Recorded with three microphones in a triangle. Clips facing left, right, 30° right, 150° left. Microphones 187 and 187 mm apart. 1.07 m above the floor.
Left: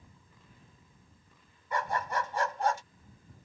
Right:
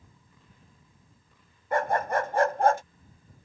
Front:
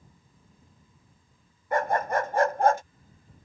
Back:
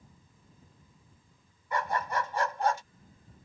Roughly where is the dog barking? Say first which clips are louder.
Right 7 dB, front 6 dB; ahead right.